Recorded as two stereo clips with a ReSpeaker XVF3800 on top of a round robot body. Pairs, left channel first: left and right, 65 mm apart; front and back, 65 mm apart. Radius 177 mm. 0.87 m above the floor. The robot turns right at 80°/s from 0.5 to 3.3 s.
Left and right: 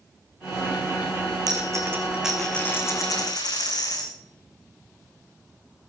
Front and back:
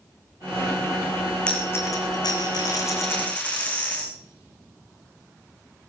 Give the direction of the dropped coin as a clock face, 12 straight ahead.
2 o'clock.